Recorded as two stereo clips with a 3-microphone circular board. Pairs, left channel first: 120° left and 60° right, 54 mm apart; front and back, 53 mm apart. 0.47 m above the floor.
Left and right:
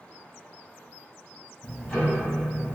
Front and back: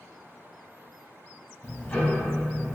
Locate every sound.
1.6 s ticking: 55° left, 0.8 m